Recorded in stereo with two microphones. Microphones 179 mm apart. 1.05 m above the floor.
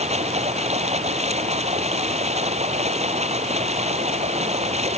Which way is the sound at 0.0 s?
35° right (ahead or behind).